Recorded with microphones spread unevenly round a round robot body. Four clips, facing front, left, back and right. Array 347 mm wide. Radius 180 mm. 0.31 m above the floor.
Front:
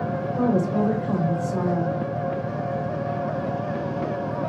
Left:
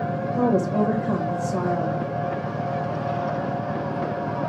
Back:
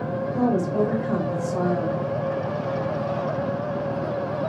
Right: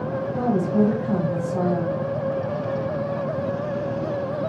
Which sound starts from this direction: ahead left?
A woman speaking, at 0.3 s.